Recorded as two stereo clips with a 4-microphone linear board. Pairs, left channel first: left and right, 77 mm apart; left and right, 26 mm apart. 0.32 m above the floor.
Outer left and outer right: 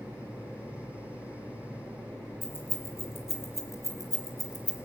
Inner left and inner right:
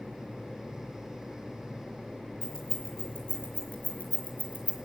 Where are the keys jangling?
30° left (ahead or behind), 5 m; by 4.8 s 55° left (ahead or behind), 3 m.